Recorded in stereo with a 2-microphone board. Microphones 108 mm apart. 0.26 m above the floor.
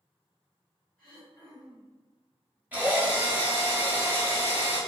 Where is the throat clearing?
10° left (ahead or behind), 1.5 m.